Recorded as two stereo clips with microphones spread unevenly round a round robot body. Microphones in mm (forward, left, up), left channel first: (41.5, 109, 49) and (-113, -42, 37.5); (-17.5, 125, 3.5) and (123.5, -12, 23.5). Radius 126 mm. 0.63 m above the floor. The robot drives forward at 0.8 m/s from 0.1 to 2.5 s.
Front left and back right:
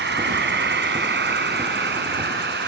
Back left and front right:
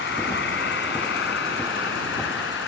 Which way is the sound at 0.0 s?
175° right.